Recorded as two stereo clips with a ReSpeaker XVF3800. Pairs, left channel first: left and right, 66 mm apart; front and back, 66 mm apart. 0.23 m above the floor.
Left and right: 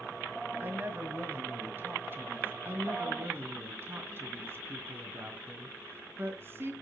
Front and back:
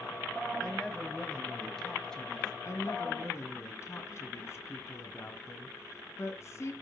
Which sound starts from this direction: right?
A woman speaking, at 0.6 s.